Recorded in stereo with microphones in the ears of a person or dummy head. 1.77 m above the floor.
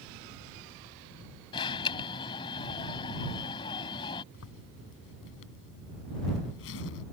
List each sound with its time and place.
1.5 s an alarm: 25° left (ahead or behind)
4.3 s a zipper: 70° left (ahead or behind)